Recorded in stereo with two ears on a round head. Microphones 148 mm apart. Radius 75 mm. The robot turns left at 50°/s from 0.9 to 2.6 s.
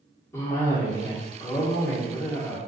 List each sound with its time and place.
0.3 s a cough: 15° left (ahead or behind), 1.2 m